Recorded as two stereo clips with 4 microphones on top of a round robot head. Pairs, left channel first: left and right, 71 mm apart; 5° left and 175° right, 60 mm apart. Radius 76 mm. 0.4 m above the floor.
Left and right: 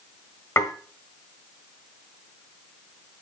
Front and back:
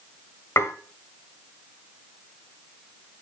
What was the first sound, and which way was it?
Dishes clattering, 45° left.